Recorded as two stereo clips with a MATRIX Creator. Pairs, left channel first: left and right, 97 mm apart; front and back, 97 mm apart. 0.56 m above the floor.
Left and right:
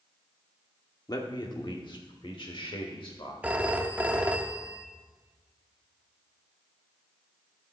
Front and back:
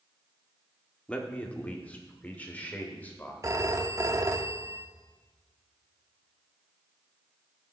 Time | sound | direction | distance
1.1 | a man speaking | 70° left | 1.1 m
3.4 | a phone ringing | 155° right | 0.7 m